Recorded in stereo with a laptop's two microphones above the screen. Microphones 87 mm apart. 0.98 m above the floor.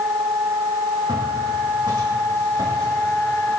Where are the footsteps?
70° right (ahead or behind), 3.5 m; by 3.5 s 45° right (ahead or behind), 4.5 m.